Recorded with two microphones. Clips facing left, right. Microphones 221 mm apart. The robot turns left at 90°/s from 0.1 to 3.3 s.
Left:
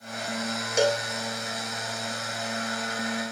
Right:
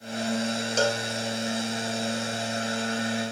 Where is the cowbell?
15° left (ahead or behind), 0.6 m; by 1.1 s 30° left (ahead or behind), 0.6 m.